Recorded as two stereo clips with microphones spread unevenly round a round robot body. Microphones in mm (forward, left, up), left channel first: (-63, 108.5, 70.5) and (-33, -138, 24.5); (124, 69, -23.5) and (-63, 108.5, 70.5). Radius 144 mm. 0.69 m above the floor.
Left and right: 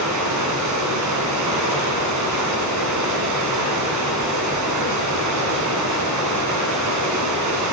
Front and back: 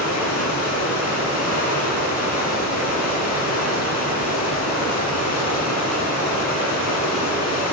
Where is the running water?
50° right, 1.9 m.